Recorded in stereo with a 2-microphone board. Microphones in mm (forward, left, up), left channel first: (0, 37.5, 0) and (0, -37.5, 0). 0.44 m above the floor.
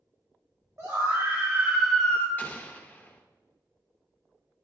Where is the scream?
40° right (ahead or behind), 1.7 m; by 2.3 s 25° left (ahead or behind), 0.9 m.